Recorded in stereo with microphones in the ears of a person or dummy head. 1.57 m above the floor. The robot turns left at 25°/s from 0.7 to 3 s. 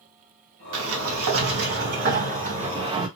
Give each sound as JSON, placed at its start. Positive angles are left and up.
{"t": 0.7, "sound": "a sliding door", "azimuth_deg": -95, "distance_m": 0.7}